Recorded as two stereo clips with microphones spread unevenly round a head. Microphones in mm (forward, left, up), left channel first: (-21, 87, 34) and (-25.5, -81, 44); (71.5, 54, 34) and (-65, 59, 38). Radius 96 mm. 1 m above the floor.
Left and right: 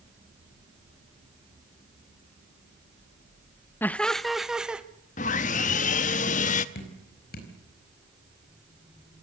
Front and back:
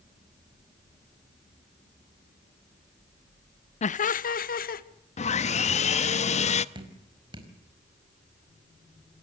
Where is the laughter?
15° left, 0.5 m; by 4.8 s 5° right, 1.4 m.